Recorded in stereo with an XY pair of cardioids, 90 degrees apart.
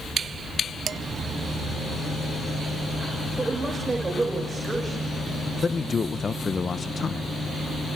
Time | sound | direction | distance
0.9 | dishes clattering | 50° right | 0.9 m
3.4 | a woman speaking | 25° right | 7 m
5.6 | a man speaking | 35° left | 0.9 m